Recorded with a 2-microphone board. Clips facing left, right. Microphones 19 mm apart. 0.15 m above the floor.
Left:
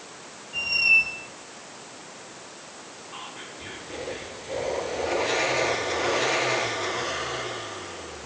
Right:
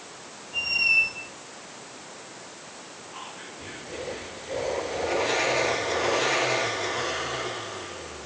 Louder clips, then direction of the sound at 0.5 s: Left 2 dB; 25° left (ahead or behind).